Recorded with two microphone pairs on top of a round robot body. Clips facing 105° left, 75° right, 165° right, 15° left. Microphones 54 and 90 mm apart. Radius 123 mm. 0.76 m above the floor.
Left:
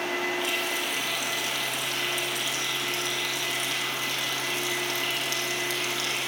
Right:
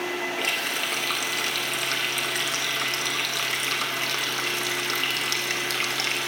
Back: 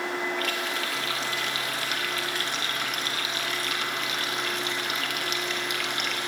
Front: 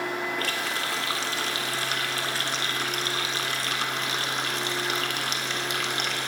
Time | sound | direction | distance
0.4 | a running tap | 40° right | 1.7 m